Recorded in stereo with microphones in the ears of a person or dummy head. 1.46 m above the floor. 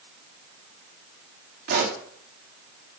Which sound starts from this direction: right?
A pop, at 1.7 s.